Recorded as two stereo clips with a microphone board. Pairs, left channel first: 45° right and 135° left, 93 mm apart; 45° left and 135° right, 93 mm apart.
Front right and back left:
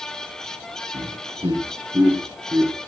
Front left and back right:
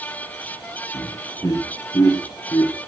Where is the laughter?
105° left, 5 m; by 2.8 s 85° left, 5 m.